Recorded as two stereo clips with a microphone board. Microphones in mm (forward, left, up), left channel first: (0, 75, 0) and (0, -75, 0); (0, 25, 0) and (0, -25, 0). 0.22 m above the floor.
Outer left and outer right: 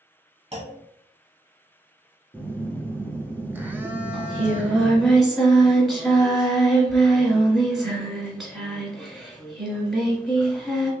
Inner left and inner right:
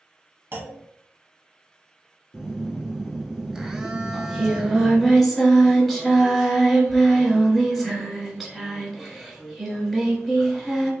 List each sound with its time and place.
0.5 s a clunk: 45° right (ahead or behind), 0.8 m
2.3 s a phone buzzing: 15° right (ahead or behind), 0.5 m
4.1 s singing: centre (ahead or behind), 0.9 m